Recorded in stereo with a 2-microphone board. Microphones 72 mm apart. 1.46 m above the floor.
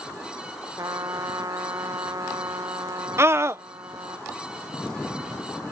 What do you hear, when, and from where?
0.8 s a trumpet: 50° right (ahead or behind)
3.2 s a scream: 40° right (ahead or behind)